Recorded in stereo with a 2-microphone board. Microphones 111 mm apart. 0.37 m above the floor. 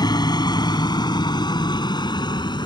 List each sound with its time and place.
0.0 s a helicopter: 40° left (ahead or behind); by 2.7 s 45° left (ahead or behind)